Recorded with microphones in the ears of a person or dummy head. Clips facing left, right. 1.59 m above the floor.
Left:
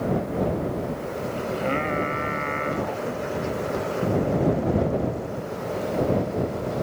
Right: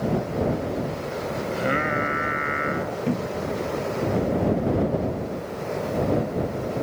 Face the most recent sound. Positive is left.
turn(degrees=-40)  # may be behind; listen again after turning